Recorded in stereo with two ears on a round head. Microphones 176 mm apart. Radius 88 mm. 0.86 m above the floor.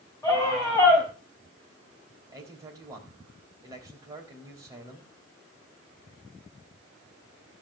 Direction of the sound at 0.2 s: 20° left (ahead or behind).